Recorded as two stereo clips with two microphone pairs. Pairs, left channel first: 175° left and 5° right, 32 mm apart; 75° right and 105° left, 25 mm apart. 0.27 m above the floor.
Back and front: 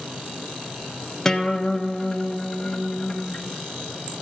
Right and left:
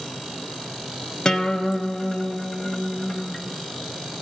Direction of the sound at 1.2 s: 120° right.